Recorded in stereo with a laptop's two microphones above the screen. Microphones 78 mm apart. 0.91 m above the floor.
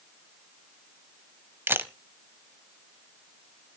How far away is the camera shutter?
About 0.8 m.